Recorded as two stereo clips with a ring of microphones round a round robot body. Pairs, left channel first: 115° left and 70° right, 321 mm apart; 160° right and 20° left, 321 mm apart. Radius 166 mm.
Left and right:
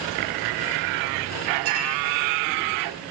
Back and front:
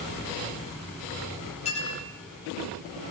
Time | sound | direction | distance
1.6 | a clink | 85° right | 10 m